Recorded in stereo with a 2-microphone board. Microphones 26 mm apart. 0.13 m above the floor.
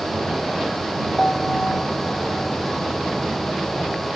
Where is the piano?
35° left (ahead or behind).